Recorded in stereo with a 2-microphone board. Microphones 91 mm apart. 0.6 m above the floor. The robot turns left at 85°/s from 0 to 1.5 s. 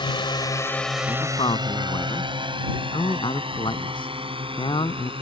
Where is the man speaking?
70° left (ahead or behind); by 5.1 s 65° left (ahead or behind).